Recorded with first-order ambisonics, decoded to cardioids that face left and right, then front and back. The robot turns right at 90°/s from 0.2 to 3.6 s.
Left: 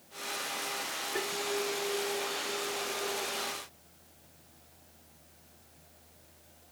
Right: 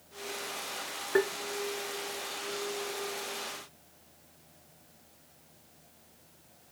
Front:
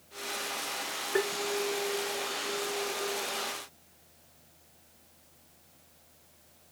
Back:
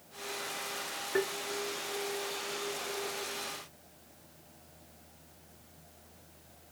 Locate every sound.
1.1 s tapping: 85° right, 1.0 m; by 1.3 s 70° right, 1.0 m